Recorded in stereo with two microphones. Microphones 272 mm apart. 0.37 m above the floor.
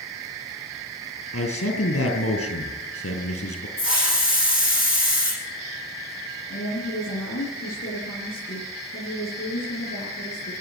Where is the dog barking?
I don't hear a dog barking.